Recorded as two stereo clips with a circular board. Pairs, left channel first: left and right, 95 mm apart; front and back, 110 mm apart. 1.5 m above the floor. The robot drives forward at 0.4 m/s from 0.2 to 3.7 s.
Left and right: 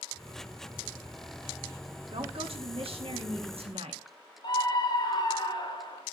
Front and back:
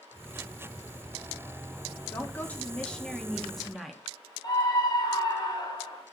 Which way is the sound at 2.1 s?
70° right.